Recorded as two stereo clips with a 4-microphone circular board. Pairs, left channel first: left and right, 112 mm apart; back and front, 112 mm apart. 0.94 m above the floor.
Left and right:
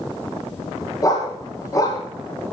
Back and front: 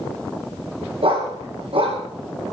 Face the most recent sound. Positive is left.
turn(degrees=30)